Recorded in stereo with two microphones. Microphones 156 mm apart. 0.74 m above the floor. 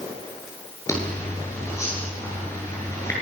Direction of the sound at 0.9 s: 20° left (ahead or behind).